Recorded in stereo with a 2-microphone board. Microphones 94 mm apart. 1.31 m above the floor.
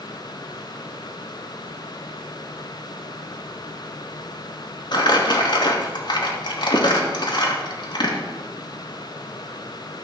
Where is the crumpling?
50° left (ahead or behind), 2 m.